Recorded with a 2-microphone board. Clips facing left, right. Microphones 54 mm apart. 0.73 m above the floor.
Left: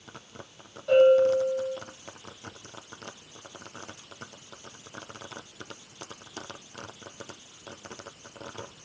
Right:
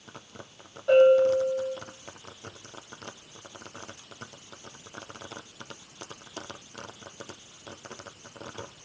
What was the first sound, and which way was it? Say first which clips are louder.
A bell: even; 25° right (ahead or behind).